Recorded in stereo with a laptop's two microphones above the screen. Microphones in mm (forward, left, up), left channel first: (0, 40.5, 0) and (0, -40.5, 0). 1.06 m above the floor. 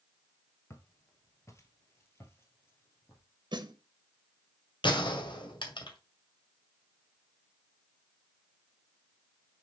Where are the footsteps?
35° left (ahead or behind), 1.2 m; by 3.2 s 25° left (ahead or behind), 1.9 m.